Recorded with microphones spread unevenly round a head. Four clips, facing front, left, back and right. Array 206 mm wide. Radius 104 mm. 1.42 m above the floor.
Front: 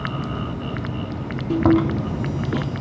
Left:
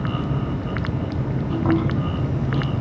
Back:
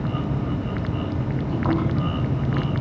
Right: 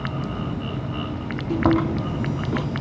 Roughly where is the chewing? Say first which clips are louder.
Right 2 dB, front 7 dB; ahead right.